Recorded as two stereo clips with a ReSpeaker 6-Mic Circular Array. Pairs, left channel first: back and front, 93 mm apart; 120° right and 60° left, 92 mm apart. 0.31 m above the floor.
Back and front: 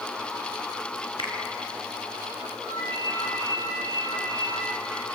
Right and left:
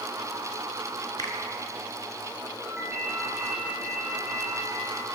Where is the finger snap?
160° right, 3 m.